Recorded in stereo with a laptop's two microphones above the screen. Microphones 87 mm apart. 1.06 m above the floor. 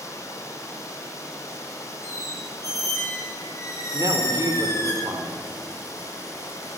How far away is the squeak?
About 5 m.